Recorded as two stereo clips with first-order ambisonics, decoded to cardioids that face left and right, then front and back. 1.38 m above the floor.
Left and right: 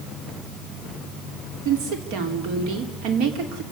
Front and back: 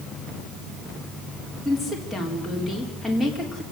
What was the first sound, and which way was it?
A woman speaking, 95° right.